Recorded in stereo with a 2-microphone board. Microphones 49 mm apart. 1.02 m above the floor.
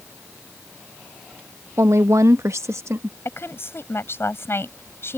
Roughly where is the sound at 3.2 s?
Left.